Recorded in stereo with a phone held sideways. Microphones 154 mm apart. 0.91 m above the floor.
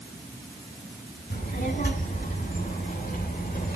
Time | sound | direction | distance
1.3 | a child speaking | 80° left | 4 m